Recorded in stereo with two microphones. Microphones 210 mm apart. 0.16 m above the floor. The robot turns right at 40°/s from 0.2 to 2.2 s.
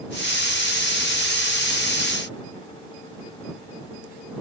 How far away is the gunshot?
I don't hear a gunshot.